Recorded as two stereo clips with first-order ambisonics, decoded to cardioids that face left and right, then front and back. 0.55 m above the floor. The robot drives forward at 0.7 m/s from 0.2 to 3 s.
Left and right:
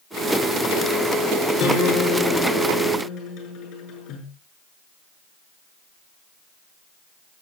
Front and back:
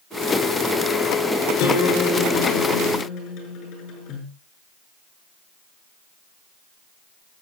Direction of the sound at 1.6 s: 40° left.